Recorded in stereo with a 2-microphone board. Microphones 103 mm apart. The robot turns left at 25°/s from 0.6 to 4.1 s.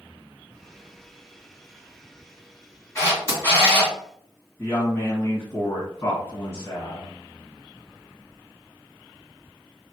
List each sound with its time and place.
3.0 s a camera shutter: 30° left (ahead or behind), 1.6 m; by 3.9 s 15° left (ahead or behind), 1.6 m
4.6 s a woman speaking: 25° left (ahead or behind), 2.0 m